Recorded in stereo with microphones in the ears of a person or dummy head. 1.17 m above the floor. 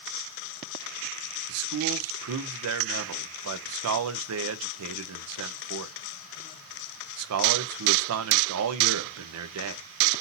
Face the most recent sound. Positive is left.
turn(degrees=-75)  # may be behind; listen again after turning